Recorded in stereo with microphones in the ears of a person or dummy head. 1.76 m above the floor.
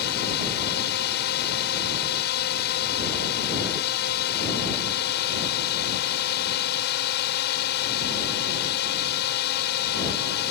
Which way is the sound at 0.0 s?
55° left (ahead or behind).